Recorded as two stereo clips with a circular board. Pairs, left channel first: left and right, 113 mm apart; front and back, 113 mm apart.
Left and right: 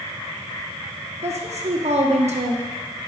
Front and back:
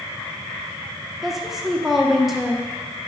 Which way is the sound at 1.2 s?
95° right.